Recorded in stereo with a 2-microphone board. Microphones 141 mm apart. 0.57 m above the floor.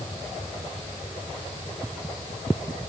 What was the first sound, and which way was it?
Only background noise.